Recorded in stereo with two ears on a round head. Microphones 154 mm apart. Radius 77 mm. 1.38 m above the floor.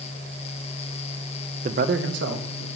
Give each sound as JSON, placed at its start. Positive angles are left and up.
{"t": 1.6, "sound": "a man speaking", "side_deg": -40, "distance_m": 0.6}